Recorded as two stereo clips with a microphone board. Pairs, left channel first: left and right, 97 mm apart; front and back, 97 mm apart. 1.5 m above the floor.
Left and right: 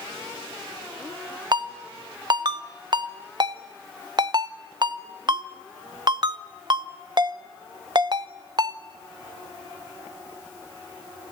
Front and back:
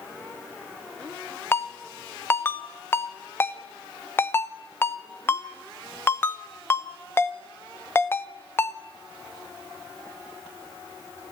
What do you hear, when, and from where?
1.5 s a ringtone: 60° right, 0.8 m